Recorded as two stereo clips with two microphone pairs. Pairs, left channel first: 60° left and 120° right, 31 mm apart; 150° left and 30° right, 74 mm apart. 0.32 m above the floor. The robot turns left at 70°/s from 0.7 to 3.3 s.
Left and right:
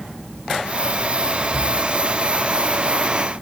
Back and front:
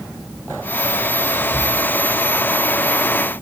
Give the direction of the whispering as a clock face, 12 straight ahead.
5 o'clock.